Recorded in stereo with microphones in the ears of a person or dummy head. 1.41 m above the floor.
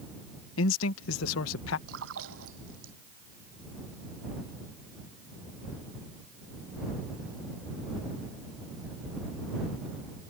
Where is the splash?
80° right.